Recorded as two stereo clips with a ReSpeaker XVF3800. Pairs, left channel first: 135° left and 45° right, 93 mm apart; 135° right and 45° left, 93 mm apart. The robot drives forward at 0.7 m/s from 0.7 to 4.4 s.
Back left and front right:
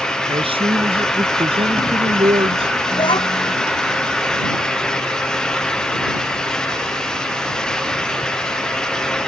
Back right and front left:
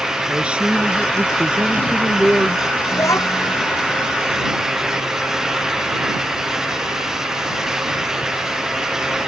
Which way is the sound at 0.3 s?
35° right.